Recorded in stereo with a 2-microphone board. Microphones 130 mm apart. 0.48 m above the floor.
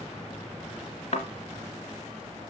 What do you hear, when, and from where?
1.1 s a thud: 65° left (ahead or behind), 1.1 m